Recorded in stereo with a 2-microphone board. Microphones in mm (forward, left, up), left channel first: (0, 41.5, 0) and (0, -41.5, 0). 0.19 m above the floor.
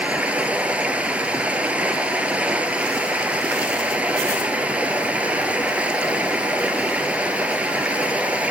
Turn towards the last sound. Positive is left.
turn(degrees=-15)  # may be behind; listen again after turning